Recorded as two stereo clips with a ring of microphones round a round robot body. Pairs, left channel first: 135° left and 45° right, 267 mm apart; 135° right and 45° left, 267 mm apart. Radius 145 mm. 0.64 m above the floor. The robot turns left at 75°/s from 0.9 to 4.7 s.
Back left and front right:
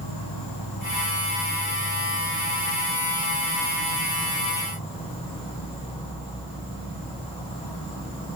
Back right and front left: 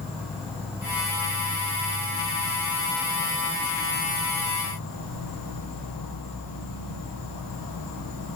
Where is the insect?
130° left, 3.5 m; by 8.4 s 155° right, 3.5 m.